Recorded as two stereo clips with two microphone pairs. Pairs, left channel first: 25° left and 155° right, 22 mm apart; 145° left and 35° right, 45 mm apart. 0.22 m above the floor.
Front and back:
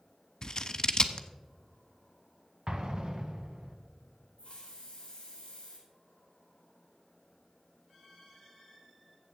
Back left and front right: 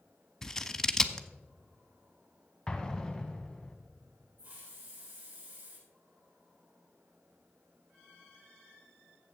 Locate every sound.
0.4 s scissors: 70° left, 0.7 m
2.7 s an explosion: 145° right, 1.4 m
4.4 s a hiss: straight ahead, 3 m